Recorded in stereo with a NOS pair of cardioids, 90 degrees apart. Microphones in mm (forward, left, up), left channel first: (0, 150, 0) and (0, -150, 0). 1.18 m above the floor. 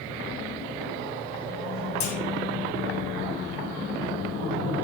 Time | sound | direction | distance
2.0 | a clunk | 70° left | 1.1 m